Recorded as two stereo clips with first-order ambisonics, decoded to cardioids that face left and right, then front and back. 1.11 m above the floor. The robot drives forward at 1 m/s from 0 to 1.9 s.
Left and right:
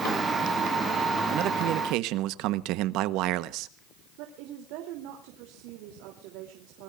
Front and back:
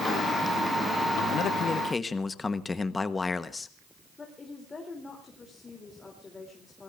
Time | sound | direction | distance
1.3 | a man speaking | 45° right | 1.2 m
4.2 | a woman speaking | 75° right | 3 m